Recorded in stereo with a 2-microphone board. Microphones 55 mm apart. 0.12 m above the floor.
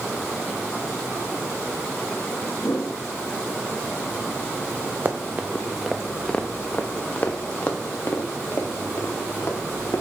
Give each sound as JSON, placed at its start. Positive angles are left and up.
{"t": 2.6, "sound": "a whoosh", "side_deg": 65, "distance_m": 2.5}
{"t": 5.0, "sound": "running footsteps", "side_deg": -40, "distance_m": 0.7}